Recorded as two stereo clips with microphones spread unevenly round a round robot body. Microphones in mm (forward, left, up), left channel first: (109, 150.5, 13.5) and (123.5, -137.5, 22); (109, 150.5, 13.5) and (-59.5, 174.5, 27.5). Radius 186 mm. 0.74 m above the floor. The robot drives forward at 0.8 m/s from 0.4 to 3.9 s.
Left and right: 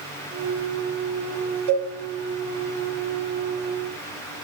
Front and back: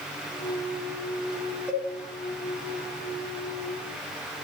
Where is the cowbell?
95° right, 3 m.